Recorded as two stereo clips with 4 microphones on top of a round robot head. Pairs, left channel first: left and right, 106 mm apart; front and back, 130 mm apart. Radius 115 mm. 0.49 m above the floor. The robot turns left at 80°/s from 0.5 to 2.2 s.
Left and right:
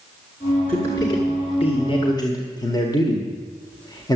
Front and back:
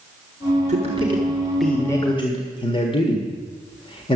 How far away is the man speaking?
About 1.7 m.